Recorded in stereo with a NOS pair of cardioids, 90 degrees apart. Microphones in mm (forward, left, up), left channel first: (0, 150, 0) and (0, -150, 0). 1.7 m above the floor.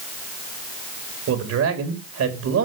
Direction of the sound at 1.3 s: 60° right.